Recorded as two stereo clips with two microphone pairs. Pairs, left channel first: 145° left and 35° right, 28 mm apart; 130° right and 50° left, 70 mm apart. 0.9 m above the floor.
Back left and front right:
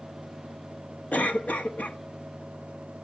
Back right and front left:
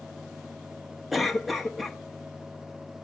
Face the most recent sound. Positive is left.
turn(degrees=135)